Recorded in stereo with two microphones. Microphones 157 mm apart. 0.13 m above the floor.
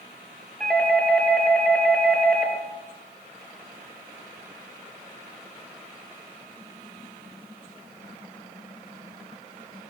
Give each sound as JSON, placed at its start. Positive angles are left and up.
{"t": 0.6, "sound": "a doorbell", "side_deg": 5, "distance_m": 3.5}